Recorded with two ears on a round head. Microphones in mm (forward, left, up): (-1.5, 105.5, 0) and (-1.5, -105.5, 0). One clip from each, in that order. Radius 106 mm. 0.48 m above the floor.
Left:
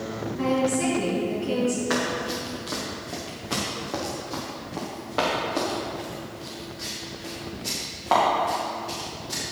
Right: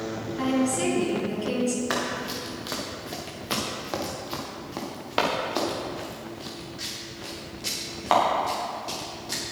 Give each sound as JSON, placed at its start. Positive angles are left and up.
{"t": 0.4, "sound": "a woman speaking", "side_deg": -70, "distance_m": 5.5}
{"t": 1.9, "sound": "running footsteps", "side_deg": -25, "distance_m": 4.0}